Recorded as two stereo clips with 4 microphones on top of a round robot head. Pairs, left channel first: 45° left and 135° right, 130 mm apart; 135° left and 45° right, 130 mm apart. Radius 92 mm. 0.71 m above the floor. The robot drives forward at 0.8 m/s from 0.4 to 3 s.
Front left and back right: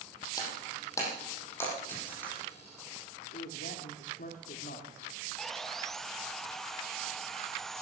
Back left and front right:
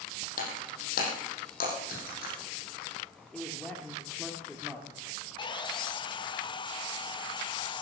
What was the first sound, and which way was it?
Breaking glass, 110° left.